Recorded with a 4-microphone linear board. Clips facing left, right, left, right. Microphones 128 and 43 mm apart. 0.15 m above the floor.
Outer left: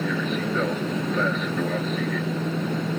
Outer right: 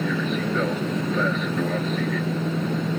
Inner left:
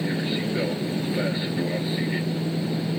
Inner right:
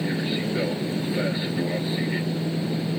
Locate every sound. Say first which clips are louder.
0.0 s an aircraft: outer right 1 dB, even; centre (ahead or behind)